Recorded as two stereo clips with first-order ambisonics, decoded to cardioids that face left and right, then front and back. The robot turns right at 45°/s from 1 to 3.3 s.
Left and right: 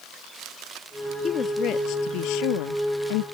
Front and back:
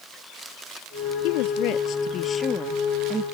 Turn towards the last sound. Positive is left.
turn(degrees=110)